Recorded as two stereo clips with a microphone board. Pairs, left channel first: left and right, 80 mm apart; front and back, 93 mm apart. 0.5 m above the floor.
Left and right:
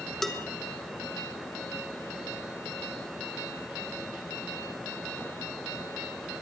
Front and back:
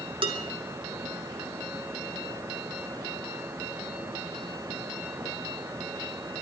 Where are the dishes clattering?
175° left, 1.7 m.